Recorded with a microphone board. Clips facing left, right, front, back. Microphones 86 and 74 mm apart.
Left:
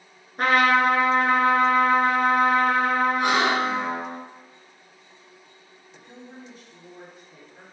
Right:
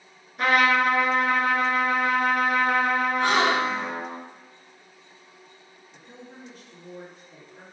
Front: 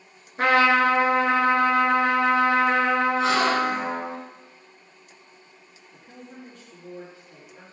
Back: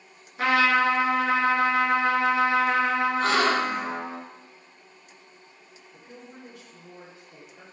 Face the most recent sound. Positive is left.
turn(degrees=15)